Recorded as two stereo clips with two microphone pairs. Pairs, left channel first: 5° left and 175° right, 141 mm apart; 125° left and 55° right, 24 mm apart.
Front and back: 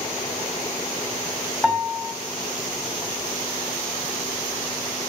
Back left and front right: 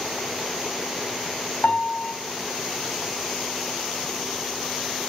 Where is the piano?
100° left, 2.5 m.